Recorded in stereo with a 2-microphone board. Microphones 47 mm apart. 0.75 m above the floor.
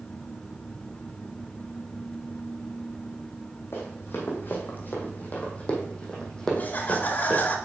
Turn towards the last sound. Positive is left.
turn(degrees=35)  # may be behind; listen again after turning